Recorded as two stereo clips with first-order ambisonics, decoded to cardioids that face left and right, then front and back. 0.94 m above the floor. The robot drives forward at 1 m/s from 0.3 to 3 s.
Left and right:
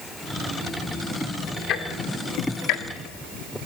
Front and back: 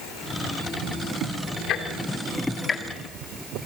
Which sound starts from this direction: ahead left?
Ticking, at 1.7 s.